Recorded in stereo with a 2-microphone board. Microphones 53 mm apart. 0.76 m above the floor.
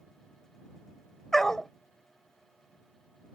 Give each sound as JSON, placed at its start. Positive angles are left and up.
{"t": 1.3, "sound": "a dog barking", "side_deg": 10}